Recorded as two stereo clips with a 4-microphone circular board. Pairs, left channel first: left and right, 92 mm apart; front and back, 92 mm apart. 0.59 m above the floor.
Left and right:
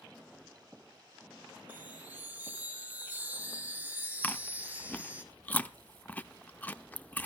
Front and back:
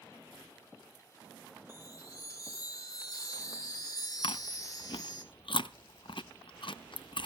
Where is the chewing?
20° left, 0.6 m.